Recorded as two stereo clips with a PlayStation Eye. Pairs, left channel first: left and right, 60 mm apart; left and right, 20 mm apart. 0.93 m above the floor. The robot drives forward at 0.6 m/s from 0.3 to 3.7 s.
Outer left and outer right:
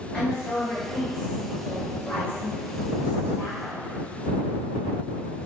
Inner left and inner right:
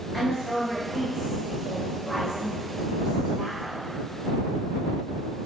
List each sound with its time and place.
0.1 s a woman speaking: 15° left (ahead or behind), 4.5 m; by 3.9 s 30° left (ahead or behind), 2.5 m